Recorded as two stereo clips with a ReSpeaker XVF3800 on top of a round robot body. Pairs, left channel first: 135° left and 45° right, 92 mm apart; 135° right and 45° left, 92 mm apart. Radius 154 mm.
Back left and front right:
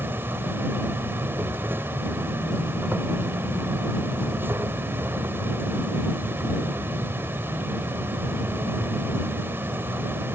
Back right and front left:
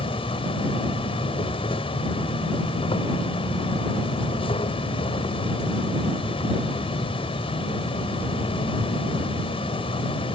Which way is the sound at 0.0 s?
115° right.